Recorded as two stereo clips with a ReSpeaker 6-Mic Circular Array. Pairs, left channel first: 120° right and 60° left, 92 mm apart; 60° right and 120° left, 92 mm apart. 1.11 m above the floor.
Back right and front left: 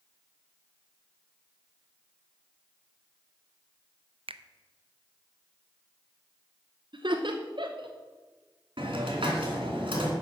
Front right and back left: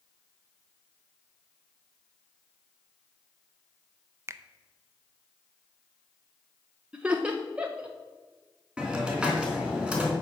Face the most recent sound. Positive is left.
turn(degrees=40)